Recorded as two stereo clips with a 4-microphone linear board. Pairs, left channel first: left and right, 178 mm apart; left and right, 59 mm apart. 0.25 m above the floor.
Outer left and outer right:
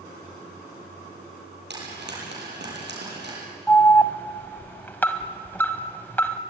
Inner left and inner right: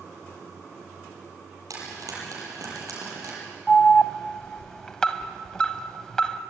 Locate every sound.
1.7 s frying: 80° right, 7.5 m
3.7 s an alarm: 10° left (ahead or behind), 1.1 m